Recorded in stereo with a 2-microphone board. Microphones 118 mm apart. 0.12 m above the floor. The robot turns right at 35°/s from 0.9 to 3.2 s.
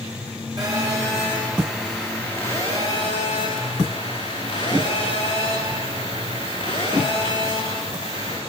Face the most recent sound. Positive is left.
turn(degrees=45)